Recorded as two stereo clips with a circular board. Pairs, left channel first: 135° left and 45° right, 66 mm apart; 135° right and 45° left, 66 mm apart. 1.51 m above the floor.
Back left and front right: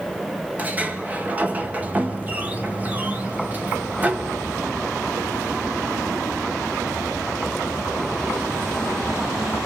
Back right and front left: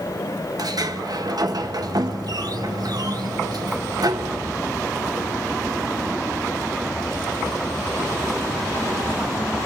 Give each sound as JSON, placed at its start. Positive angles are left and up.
{"t": 0.6, "sound": "a sliding door", "azimuth_deg": 20, "distance_m": 1.4}